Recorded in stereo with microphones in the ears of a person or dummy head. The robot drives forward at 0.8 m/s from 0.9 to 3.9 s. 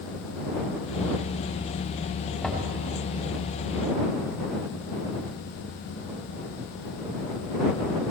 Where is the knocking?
Centre (ahead or behind), 4.5 m.